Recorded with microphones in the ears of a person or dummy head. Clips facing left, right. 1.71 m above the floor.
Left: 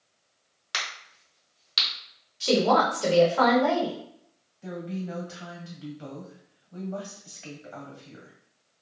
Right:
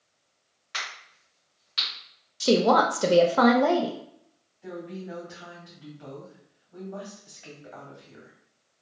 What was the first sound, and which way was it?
A crack, 65° left (ahead or behind).